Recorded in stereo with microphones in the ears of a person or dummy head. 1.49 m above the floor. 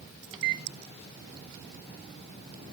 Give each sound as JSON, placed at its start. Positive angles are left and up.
{"t": 0.3, "sound": "a microwave", "side_deg": -25, "distance_m": 1.0}